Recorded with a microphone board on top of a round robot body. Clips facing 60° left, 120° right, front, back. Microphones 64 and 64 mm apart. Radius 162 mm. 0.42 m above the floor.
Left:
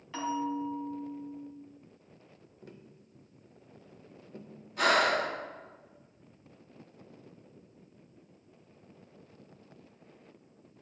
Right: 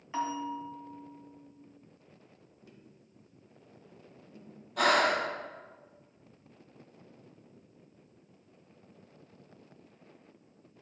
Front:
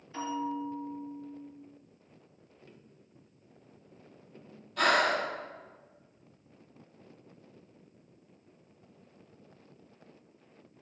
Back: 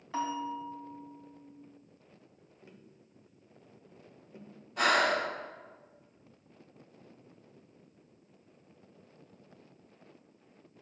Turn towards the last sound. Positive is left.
turn(degrees=-110)